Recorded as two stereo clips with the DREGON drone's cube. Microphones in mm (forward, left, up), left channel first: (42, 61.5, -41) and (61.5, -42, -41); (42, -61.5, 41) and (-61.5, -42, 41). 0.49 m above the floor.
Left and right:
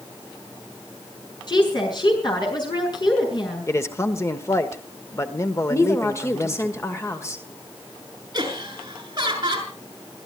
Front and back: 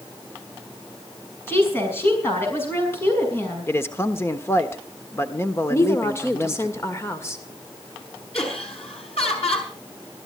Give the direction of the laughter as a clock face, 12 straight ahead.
1 o'clock.